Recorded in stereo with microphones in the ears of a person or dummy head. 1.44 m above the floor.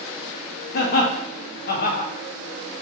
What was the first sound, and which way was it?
Laughter, 50° left (ahead or behind).